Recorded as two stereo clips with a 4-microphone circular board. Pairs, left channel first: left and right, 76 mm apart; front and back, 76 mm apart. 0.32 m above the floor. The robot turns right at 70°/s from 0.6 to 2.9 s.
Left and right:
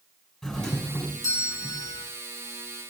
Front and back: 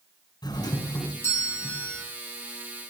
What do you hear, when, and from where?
0.4 s a doorbell: 5° left, 5 m; by 2.0 s 105° left, 5 m